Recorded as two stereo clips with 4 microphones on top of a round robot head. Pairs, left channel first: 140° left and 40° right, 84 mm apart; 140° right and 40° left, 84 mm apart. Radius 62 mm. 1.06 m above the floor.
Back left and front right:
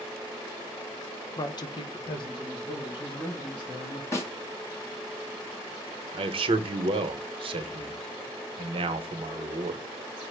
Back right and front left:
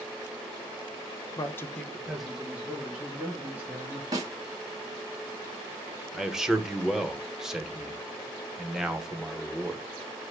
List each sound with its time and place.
1.4 s a man speaking: straight behind, 0.6 m; by 4.0 s 105° left, 2 m
4.1 s a snare drum: 85° left, 1.1 m
6.1 s a man speaking: 40° right, 0.7 m